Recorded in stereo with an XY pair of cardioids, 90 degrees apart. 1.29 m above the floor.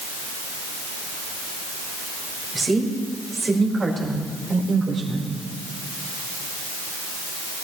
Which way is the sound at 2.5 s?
25° right.